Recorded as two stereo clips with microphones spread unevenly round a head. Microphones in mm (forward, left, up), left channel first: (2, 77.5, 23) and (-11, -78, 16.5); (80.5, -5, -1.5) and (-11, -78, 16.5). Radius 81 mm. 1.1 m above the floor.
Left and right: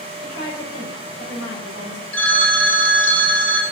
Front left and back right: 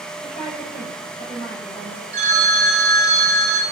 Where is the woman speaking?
90° left, 5 m.